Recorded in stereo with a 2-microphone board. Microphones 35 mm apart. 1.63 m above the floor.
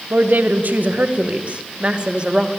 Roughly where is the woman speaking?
Right.